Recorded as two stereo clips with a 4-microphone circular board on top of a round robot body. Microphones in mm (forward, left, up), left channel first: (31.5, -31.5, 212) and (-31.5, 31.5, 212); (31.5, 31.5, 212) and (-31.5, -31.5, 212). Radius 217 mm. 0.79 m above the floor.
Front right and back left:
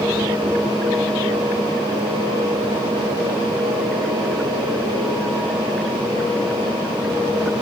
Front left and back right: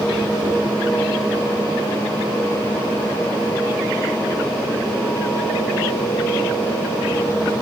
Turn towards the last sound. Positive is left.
No sound to turn to.